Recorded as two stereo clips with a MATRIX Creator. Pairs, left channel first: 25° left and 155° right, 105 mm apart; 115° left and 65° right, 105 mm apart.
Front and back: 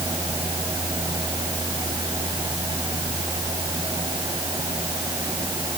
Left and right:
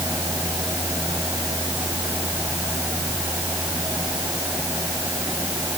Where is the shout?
No shout in this recording.